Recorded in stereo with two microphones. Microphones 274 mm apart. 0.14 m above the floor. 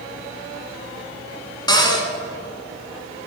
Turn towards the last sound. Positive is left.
turn(degrees=15)  # may be behind; listen again after turning